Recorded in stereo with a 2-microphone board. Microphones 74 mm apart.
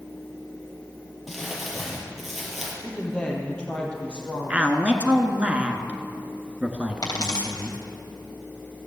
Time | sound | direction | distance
1.3 | crumpling | centre (ahead or behind) | 3.5 m
2.8 | a woman speaking | 15° left (ahead or behind) | 4 m
4.5 | a man speaking | 20° right (ahead or behind) | 1.3 m
7.0 | a dropped coin | 65° left (ahead or behind) | 3 m